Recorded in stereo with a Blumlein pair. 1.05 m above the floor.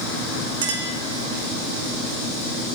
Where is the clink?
55° right, 1.2 m.